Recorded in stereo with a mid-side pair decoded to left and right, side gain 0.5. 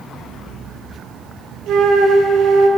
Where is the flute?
65° right, 1.0 m.